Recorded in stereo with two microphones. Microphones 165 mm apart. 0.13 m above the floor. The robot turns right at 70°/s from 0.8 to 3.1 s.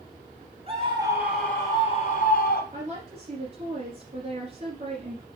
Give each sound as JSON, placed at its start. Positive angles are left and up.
{"t": 0.7, "sound": "a scream", "azimuth_deg": -35, "distance_m": 2.5}
{"t": 2.7, "sound": "a woman speaking", "side_deg": -50, "distance_m": 2.0}